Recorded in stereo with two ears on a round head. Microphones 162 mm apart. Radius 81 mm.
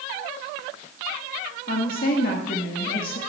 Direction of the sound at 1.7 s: 55° left (ahead or behind).